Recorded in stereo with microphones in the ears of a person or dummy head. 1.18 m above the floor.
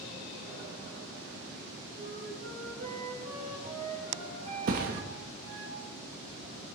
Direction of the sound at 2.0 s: 40° right (ahead or behind).